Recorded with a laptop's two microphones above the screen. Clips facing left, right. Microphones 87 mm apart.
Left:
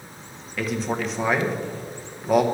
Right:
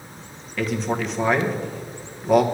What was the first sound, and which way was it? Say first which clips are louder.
A man speaking: right 2 dB; centre (ahead or behind).